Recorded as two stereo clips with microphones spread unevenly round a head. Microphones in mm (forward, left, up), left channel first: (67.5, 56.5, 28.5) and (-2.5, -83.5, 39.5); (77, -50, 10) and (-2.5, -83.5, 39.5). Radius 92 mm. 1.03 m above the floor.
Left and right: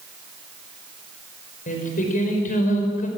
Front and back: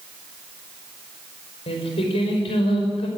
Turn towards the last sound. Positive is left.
turn(degrees=25)